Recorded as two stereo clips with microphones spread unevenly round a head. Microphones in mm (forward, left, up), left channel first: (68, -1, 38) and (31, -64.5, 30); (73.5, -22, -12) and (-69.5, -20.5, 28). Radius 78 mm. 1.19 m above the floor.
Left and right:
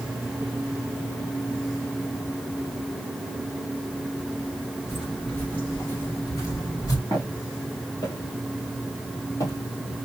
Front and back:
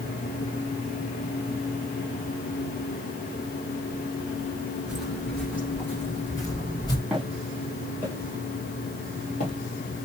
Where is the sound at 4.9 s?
135° left, 1.2 m; by 7.0 s 70° left, 1.6 m.